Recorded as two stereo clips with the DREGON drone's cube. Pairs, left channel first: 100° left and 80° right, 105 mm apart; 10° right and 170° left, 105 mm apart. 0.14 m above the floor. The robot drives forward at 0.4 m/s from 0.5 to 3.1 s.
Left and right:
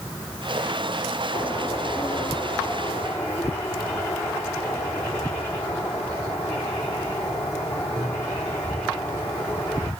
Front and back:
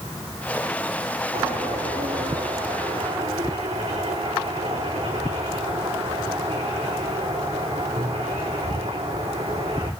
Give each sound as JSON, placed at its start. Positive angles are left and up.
{"t": 1.3, "sound": "a bird", "azimuth_deg": 170, "distance_m": 4.0}